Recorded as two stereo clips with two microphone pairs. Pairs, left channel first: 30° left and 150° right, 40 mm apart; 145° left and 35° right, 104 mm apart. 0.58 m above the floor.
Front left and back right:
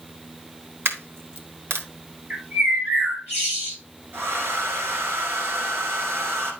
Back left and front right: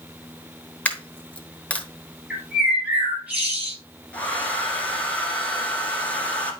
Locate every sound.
0.8 s a dropped coin: 140° right, 1.1 m
2.3 s a bird: 110° right, 4 m
4.1 s a hair dryer: 140° right, 1.8 m